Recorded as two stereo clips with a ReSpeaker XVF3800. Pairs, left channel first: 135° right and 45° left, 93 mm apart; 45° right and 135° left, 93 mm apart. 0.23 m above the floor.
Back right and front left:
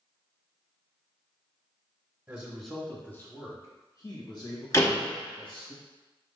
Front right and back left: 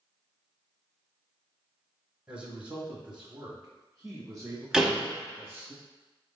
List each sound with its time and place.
2.3 s a man speaking: 75° left, 1.0 m; by 5.7 s 140° right, 2.5 m
4.7 s a door slam: 145° right, 0.8 m